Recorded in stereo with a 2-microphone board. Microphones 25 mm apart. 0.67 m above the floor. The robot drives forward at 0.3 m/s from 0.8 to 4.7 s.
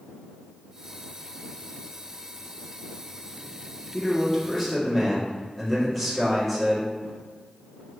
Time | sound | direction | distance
3.9 | a man speaking | 5° left (ahead or behind) | 1.1 m